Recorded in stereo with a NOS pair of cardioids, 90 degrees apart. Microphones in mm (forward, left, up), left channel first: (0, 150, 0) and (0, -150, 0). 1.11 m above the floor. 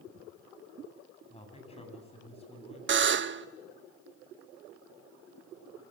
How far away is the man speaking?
About 9 m.